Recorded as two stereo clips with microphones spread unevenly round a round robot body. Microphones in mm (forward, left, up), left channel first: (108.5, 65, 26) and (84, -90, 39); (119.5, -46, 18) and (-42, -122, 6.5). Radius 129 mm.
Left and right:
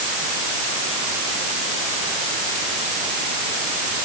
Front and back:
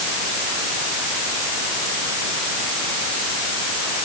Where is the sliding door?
No sliding door in this recording.